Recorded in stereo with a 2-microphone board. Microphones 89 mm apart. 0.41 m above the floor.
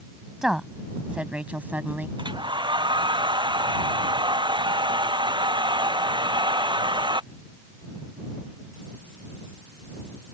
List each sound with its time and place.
0.4 s a woman speaking: 5° right (ahead or behind); by 2.1 s 25° right (ahead or behind)
2.2 s a hair dryer: 70° right (ahead or behind)